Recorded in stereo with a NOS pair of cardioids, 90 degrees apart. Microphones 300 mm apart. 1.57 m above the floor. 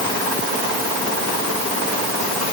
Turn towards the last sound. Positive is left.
No sound to turn to.